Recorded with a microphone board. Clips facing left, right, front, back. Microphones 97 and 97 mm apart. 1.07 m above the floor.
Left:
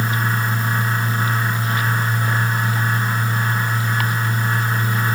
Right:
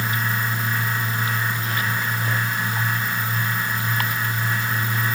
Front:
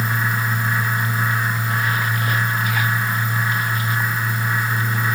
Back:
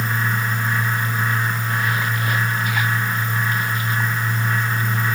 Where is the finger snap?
No finger snap in this recording.